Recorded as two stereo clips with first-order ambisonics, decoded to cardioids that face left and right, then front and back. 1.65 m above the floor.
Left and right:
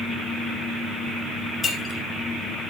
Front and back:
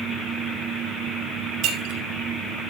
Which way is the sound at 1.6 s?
155° left.